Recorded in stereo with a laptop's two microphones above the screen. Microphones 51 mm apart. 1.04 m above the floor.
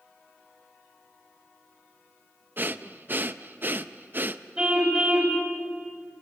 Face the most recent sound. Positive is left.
turn(degrees=-20)  # may be behind; listen again after turning